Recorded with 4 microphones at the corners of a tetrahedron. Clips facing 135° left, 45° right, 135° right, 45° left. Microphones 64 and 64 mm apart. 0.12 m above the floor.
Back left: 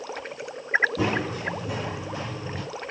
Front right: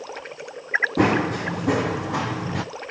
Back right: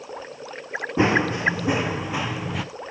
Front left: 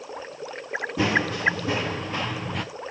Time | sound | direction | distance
1.0 | running footsteps | 70° right | 2 m